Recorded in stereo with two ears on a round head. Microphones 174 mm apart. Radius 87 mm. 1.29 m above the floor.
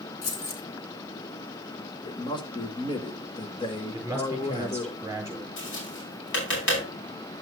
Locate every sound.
0.2 s keys jangling: 70° left (ahead or behind), 2.5 m
2.0 s a man speaking: 25° left (ahead or behind), 1.6 m
3.9 s a man speaking: 15° right (ahead or behind), 5 m
5.6 s tapping: 70° left (ahead or behind), 5.5 m